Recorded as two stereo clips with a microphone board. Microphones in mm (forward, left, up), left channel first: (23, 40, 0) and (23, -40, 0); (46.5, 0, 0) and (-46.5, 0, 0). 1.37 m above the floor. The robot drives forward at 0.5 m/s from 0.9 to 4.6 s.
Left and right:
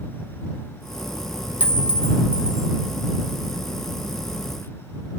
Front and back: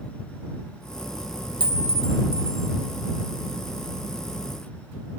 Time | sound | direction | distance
1.6 | a clink | 160° right | 1.1 m